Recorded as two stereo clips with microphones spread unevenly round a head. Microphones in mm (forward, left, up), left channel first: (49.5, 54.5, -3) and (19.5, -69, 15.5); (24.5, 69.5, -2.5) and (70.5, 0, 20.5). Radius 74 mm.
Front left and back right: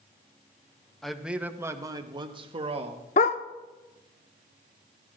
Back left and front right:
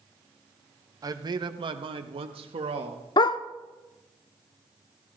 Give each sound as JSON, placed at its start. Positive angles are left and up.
{"t": 1.0, "sound": "a man speaking", "azimuth_deg": -5, "distance_m": 0.9}
{"t": 3.2, "sound": "a dog barking", "azimuth_deg": 100, "distance_m": 0.5}